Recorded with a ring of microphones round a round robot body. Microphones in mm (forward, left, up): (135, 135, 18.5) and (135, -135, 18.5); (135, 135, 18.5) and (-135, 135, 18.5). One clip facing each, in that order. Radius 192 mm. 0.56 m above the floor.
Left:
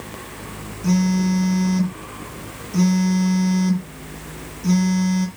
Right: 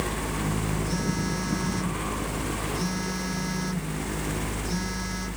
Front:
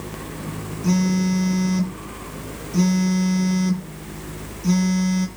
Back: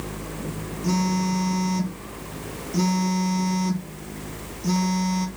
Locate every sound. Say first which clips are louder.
0.8 s a phone buzzing: left 10 dB, front 4 dB; 85° left, 8 m